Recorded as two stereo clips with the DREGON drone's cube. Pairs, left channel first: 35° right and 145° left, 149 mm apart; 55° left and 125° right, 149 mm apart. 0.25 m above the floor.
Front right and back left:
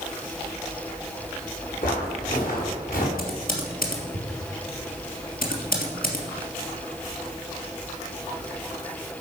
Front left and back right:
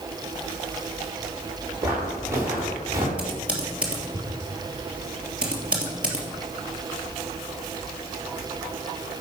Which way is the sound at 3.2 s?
45° right.